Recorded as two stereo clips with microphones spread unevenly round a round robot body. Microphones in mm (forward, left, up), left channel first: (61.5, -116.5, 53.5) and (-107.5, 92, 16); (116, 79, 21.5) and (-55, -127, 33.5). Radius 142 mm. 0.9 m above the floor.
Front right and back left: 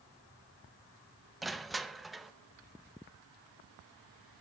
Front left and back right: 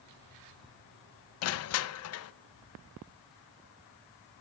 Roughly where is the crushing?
Ahead left.